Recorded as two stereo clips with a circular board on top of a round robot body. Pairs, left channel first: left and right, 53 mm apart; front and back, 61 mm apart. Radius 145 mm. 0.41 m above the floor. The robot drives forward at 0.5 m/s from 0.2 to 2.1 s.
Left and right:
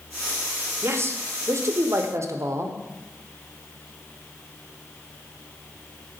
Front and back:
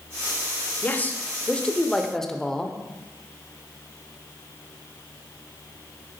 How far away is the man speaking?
About 1.7 m.